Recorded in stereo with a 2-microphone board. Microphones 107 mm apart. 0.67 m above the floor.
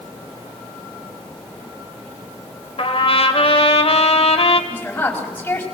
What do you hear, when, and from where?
2.8 s a trumpet: 60° left (ahead or behind), 1.9 m
4.7 s a woman speaking: 15° left (ahead or behind), 4.5 m